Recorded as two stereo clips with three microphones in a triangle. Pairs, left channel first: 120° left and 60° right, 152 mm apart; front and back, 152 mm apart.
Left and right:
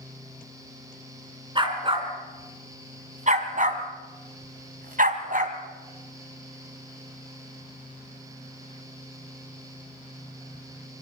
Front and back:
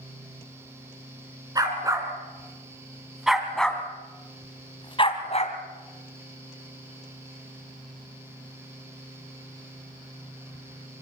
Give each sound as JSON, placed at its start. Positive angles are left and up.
{"t": 1.6, "sound": "a dog barking", "azimuth_deg": -115, "distance_m": 3.5}